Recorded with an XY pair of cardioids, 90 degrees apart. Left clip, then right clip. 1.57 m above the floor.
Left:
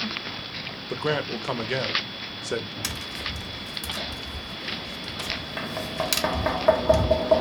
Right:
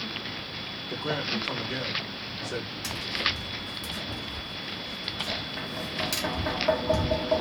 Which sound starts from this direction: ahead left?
Tapping, at 2.8 s.